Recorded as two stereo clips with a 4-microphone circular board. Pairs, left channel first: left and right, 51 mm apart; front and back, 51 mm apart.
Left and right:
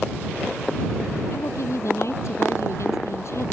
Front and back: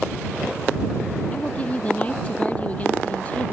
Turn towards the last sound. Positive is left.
turn(degrees=65)